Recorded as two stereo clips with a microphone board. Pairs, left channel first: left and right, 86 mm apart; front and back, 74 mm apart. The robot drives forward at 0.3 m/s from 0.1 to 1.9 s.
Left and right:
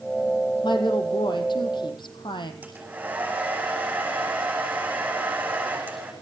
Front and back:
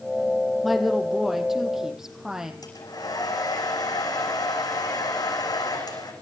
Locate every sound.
0.6 s a woman speaking: 90° left, 3.5 m; by 2.5 s 95° left, 3.5 m
2.6 s a hair dryer: 20° right, 7.5 m